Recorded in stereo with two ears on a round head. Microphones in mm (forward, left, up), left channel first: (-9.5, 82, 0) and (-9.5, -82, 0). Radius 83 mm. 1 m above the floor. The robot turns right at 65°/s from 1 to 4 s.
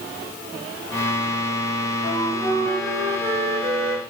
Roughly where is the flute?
Behind left.